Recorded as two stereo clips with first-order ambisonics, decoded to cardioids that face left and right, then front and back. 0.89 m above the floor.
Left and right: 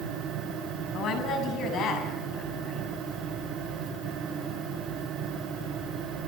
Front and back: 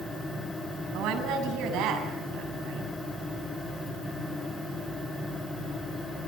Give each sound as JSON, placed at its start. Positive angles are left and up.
{"t": 0.9, "sound": "a woman speaking", "azimuth_deg": 140, "distance_m": 7.5}